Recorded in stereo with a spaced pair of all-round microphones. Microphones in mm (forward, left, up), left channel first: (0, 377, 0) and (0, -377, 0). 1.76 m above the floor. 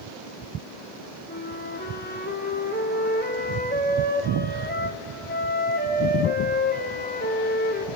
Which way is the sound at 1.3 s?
10° left (ahead or behind).